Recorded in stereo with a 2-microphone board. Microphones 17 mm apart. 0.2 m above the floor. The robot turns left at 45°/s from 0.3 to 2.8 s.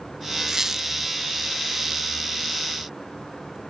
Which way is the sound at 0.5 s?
30° right (ahead or behind).